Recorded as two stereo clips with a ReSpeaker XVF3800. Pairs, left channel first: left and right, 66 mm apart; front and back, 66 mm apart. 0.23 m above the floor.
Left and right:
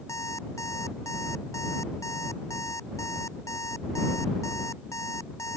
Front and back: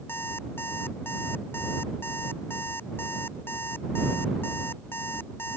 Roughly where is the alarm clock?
Ahead left.